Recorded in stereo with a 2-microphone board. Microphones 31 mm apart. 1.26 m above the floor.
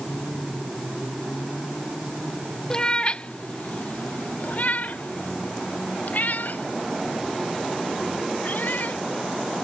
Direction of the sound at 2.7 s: 25° left (ahead or behind).